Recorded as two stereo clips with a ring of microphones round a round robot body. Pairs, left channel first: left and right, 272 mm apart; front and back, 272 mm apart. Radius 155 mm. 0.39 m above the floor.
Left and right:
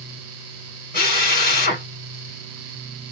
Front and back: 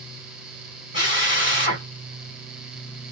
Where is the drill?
45° left, 1.9 m.